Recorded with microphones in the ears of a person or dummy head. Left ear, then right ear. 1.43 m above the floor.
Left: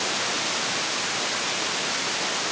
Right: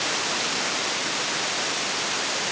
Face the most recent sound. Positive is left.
No sound to turn to.